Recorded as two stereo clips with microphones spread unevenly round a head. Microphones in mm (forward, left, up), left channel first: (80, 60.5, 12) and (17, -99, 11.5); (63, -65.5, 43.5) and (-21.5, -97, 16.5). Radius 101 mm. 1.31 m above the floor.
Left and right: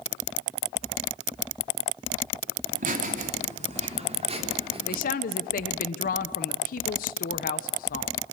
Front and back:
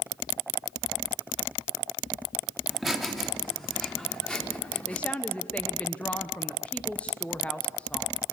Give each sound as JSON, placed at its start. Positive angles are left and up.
{"t": 2.7, "sound": "laughter", "azimuth_deg": -70, "distance_m": 3.0}
{"t": 4.9, "sound": "a woman speaking", "azimuth_deg": 110, "distance_m": 0.9}